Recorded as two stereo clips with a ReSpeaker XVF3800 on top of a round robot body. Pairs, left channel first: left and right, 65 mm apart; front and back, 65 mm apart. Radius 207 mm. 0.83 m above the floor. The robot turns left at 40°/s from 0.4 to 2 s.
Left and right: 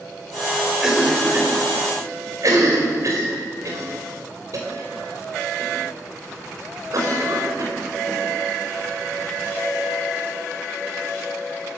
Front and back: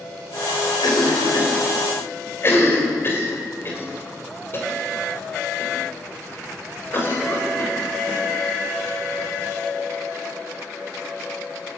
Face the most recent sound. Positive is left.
turn(degrees=-55)